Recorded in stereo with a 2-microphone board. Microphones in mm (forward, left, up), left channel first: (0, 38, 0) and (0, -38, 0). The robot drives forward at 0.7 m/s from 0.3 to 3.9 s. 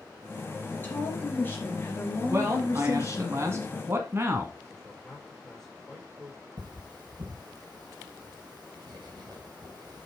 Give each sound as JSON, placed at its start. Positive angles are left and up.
{"t": 0.7, "sound": "a woman speaking", "side_deg": 25, "distance_m": 3.5}
{"t": 2.3, "sound": "a man speaking", "side_deg": -35, "distance_m": 1.4}
{"t": 4.7, "sound": "a man speaking", "side_deg": 0, "distance_m": 5.0}
{"t": 6.6, "sound": "cutlery clinking", "side_deg": -65, "distance_m": 4.0}